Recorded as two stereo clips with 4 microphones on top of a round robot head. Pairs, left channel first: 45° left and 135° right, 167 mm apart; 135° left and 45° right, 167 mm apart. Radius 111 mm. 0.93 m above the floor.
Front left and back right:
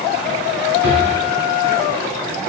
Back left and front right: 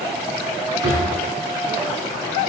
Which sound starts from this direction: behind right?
A drawer, at 0.8 s.